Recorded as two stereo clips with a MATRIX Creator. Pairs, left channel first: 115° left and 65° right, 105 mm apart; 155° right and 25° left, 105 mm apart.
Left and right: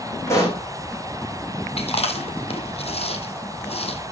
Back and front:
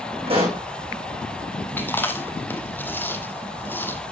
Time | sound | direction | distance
0.3 | a pop | 50° left | 9.5 m
1.8 | chewing | 130° left | 1.8 m